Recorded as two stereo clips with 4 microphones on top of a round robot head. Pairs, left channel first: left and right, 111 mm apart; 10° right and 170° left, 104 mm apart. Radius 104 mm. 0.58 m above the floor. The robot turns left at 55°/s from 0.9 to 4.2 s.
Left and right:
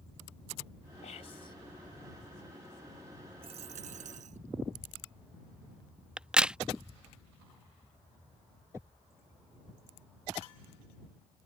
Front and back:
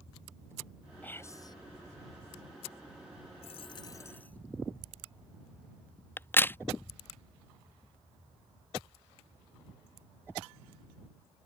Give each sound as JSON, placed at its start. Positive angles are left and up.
{"t": 1.0, "sound": "whispering", "azimuth_deg": 65}
{"t": 3.4, "sound": "a dropped coin", "azimuth_deg": -45}
{"t": 6.2, "sound": "a crack", "azimuth_deg": -25}